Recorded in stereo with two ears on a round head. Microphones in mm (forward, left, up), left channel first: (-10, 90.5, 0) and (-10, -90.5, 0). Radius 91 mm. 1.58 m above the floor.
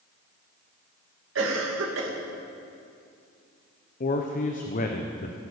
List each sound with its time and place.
1.4 s a cough: 75° right (ahead or behind), 2.5 m
4.0 s a man speaking: 45° left (ahead or behind), 0.9 m